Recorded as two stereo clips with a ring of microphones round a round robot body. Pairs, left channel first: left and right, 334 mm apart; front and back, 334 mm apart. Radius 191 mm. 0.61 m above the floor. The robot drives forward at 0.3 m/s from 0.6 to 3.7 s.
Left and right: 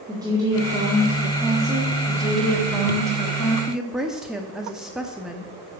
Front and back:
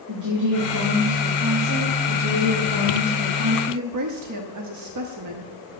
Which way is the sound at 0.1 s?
165° right.